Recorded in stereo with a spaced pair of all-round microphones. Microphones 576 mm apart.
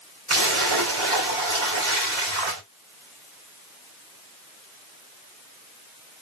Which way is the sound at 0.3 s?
55° right (ahead or behind).